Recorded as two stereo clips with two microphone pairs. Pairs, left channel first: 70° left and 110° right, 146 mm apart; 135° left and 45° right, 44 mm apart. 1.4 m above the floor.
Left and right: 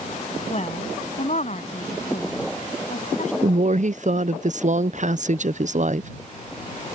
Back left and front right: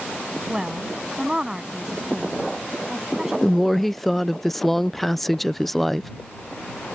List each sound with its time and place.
0.5 s a woman speaking: 30° left; by 3.3 s 40° left
3.4 s a woman speaking: 135° right